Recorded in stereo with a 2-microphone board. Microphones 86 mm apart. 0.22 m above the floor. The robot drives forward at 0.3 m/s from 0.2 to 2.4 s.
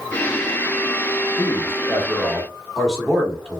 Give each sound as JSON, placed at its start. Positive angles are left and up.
{"t": 1.4, "sound": "a man speaking", "side_deg": 0, "distance_m": 1.4}